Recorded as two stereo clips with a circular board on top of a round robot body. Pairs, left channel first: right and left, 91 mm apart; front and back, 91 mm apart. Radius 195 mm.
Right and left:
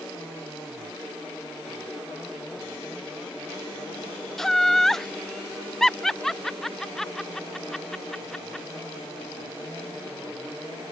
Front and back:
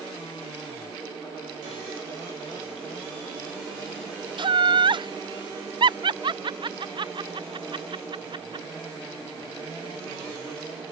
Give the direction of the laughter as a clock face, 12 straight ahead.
6 o'clock.